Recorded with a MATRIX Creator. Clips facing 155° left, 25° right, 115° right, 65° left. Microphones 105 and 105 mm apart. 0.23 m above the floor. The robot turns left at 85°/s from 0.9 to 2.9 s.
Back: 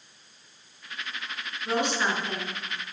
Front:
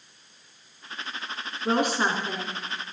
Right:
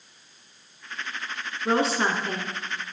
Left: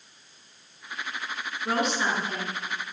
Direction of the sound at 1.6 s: 45° right.